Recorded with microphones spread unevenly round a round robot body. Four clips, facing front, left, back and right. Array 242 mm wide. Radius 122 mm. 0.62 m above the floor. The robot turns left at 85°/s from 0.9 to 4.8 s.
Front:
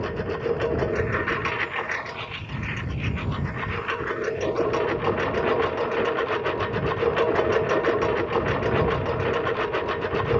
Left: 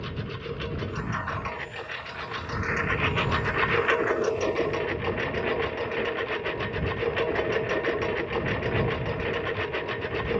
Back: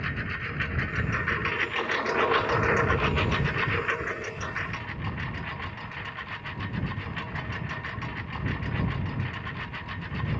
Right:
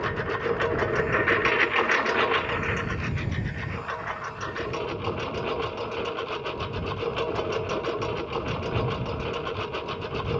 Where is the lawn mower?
25° right; by 10.4 s 5° left.